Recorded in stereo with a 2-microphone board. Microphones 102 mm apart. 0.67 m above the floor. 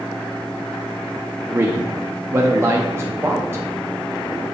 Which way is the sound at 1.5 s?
25° right (ahead or behind).